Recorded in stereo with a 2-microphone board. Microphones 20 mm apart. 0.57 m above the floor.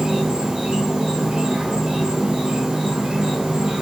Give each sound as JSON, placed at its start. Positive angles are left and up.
{"t": 0.0, "sound": "an insect", "side_deg": -55, "distance_m": 1.4}